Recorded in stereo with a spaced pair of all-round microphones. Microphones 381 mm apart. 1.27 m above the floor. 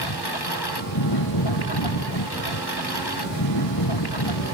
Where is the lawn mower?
85° left.